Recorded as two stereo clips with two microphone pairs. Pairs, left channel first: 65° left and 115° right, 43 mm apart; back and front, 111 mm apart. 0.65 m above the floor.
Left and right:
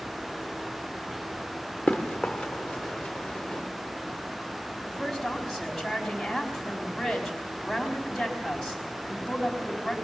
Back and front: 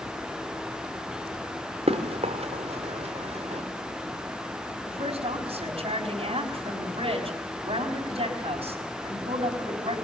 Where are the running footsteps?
10° right, 2.5 m; by 3.6 s 15° right, 4 m.